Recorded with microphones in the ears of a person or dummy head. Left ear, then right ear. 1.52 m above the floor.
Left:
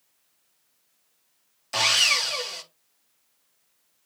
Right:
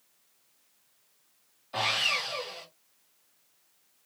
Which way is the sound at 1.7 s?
70° left (ahead or behind).